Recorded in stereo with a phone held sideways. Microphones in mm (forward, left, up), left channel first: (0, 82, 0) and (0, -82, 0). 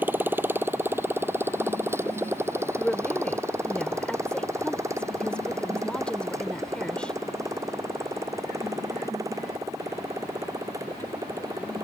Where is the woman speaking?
5° left (ahead or behind).